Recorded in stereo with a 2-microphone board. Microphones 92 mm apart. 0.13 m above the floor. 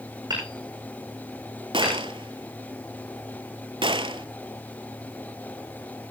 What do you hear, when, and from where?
0.3 s hammering: 50° right (ahead or behind), 7 m
1.7 s a gunshot: 70° right (ahead or behind), 0.7 m